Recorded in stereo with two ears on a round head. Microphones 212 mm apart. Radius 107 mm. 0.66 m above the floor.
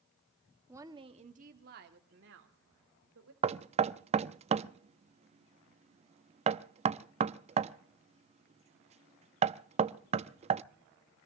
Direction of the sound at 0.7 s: 10° right (ahead or behind).